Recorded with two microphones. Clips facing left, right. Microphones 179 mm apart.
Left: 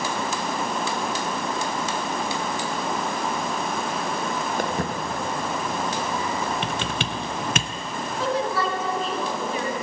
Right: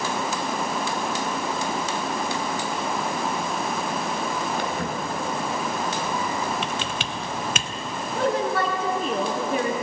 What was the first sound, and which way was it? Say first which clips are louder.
Footsteps: left 1 dB; 50° left (ahead or behind).